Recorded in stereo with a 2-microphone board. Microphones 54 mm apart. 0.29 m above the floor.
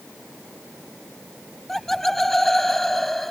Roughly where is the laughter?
Centre.